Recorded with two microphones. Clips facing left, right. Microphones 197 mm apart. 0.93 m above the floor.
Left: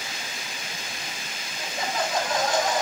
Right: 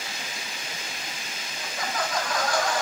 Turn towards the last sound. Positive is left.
turn(degrees=20)  # may be behind; listen again after turning